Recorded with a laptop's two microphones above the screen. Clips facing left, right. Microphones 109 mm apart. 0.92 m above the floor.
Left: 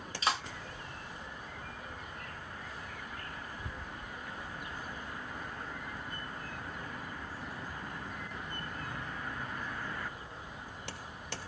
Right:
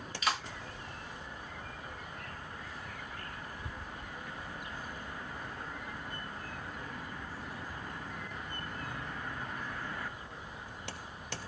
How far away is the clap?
About 1.0 m.